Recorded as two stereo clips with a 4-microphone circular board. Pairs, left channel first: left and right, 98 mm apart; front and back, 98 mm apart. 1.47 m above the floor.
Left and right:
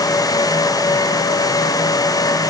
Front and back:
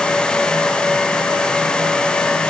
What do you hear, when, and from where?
Only background noise.